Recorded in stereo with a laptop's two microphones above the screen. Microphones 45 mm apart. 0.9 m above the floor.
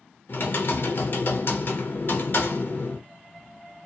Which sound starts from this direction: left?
Typing on a keyboard, at 0.3 s.